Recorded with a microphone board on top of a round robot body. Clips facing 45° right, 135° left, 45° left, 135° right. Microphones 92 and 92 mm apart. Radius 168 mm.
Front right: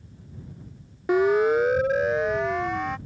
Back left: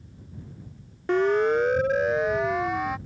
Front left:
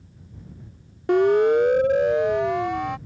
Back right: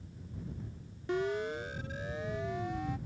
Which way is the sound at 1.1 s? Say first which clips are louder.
Front right 2 dB, front left 17 dB; 35° left.